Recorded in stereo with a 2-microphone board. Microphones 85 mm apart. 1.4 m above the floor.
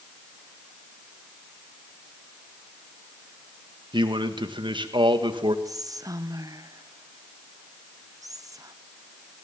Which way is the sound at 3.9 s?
70° right (ahead or behind).